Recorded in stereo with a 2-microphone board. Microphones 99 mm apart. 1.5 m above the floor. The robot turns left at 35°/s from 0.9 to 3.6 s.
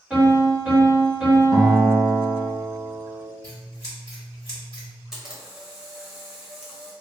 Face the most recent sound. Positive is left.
turn(degrees=-5)  # may be behind; listen again after turning